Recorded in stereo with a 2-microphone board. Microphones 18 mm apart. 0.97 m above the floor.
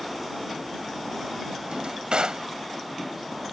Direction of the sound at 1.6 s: 75° right (ahead or behind).